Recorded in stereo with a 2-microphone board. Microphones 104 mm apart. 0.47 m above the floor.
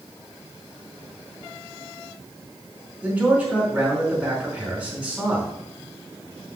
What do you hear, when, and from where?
3.0 s a man speaking: 10° right (ahead or behind), 4.5 m